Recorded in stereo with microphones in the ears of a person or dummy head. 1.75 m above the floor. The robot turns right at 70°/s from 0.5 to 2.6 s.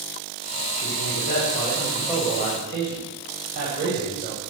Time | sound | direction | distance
0.8 | a man speaking | 95° left | 8.5 m